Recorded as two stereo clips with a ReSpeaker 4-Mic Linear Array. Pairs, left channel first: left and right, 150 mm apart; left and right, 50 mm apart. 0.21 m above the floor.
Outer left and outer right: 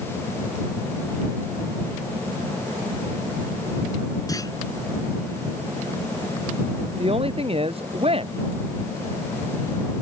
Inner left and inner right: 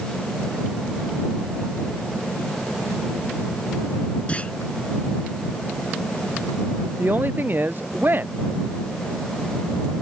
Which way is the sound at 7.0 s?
40° right (ahead or behind).